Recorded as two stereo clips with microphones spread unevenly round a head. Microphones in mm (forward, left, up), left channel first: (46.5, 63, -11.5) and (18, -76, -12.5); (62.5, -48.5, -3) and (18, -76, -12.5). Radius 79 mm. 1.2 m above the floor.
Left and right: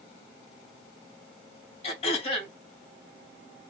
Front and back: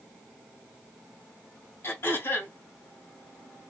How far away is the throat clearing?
About 1.5 m.